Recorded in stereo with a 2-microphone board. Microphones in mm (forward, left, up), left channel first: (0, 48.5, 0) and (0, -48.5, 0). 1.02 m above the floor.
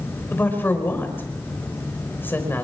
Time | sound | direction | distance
0.3 | a woman speaking | 20° left (ahead or behind) | 5 m